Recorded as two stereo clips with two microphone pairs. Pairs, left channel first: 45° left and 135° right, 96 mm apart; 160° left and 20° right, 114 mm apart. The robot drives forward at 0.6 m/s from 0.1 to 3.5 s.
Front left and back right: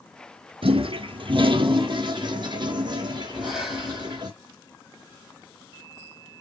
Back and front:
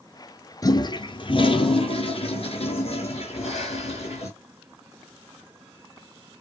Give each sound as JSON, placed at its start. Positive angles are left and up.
{"t": 0.6, "sound": "a toilet flushing", "azimuth_deg": -140, "distance_m": 0.5}
{"t": 3.3, "sound": "breathing", "azimuth_deg": 140, "distance_m": 1.3}